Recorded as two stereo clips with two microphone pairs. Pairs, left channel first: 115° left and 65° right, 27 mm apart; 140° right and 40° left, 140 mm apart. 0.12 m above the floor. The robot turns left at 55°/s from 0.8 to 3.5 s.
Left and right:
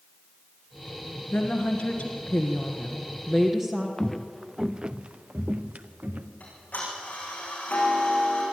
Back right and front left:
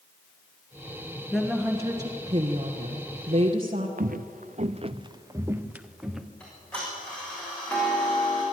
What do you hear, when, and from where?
1.3 s a woman speaking: 130° left, 1.5 m; by 3.9 s 10° left, 1.5 m
4.0 s footsteps: 40° left, 0.8 m; by 6.3 s 50° right, 1.5 m
6.4 s ticking: 140° left, 7 m